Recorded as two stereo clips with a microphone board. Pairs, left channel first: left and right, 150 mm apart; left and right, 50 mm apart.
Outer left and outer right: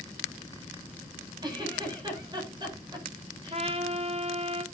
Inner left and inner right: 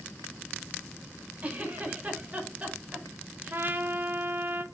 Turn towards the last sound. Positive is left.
turn(degrees=-45)  # may be behind; listen again after turning